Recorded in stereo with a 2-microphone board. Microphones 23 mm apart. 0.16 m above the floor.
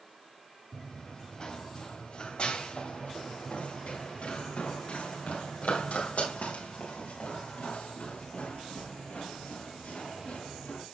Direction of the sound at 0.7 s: 30° left (ahead or behind).